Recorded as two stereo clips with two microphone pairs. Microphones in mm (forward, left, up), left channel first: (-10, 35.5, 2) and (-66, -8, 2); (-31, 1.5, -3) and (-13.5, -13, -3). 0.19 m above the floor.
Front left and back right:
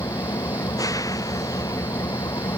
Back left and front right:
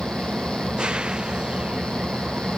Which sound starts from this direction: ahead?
An engine running, at 0.0 s.